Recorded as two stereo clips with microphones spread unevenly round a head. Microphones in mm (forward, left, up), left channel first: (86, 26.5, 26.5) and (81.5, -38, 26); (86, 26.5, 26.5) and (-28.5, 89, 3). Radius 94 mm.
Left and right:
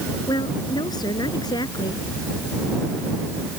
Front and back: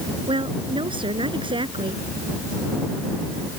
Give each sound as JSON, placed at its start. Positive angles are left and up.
{"t": 0.3, "sound": "a woman speaking", "azimuth_deg": 100}